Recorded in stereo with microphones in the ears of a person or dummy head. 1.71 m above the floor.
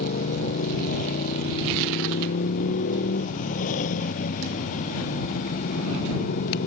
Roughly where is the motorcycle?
Left.